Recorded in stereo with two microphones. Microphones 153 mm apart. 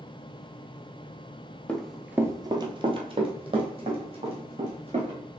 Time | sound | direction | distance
1.7 | running footsteps | 10° left (ahead or behind) | 0.6 m